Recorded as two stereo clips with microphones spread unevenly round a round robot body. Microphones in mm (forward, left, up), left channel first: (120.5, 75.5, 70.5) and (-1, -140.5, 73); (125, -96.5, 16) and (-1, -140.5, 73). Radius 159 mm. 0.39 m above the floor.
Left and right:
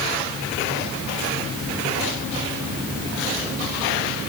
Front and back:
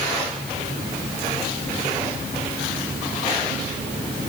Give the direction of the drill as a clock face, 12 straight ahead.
I don't hear a drill.